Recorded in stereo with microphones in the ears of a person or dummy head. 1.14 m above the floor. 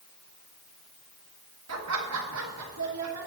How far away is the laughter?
About 1.5 m.